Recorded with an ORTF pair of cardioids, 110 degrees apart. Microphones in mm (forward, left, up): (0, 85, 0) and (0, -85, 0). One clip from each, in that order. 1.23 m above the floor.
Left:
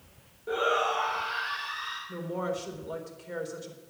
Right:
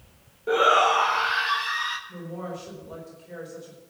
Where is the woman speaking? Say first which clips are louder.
Left 3 dB; 45° left, 4 m.